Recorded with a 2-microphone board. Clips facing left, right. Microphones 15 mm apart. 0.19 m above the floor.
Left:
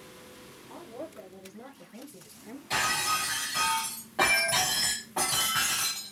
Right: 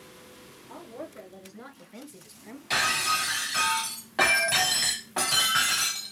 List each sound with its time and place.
0.7 s a woman speaking: 60° right (ahead or behind), 3 m; by 2.6 s 20° right (ahead or behind), 1.2 m
2.7 s breaking glass: 40° right (ahead or behind), 3 m